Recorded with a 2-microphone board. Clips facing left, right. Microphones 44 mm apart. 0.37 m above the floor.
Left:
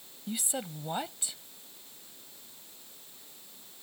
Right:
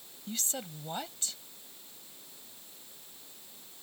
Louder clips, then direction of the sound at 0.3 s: Left 3 dB; 15° left (ahead or behind).